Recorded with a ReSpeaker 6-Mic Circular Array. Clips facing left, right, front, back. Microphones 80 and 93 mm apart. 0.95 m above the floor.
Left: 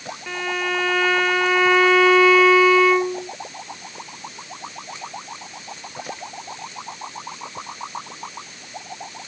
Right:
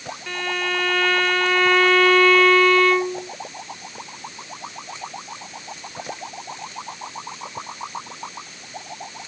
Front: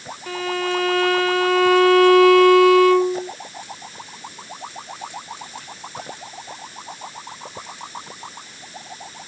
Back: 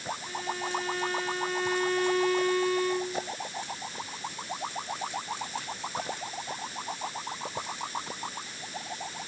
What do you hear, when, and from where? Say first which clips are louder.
0.3 s a violin: left 1 dB, front 12 dB; 10° left